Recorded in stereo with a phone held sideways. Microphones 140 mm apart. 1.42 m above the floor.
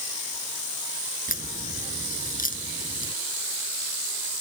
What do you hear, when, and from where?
1.3 s a crack: 85° left